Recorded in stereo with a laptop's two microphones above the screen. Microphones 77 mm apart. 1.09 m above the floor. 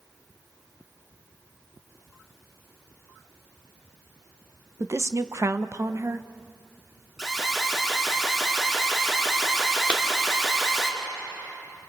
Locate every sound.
4.8 s a woman speaking: 40° right (ahead or behind), 0.8 m
7.2 s an alarm: 5° right (ahead or behind), 4 m
9.9 s a clap: 15° right (ahead or behind), 1.9 m